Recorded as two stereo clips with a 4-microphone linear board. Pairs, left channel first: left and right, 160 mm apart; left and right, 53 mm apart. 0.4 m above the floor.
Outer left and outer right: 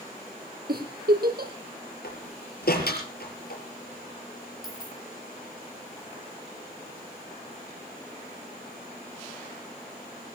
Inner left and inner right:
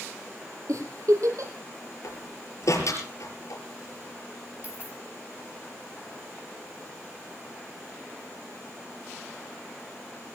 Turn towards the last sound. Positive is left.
turn(degrees=-25)  # may be behind; listen again after turning